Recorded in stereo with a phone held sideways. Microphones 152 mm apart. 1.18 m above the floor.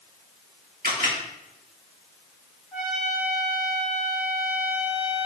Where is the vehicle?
I don't hear a vehicle.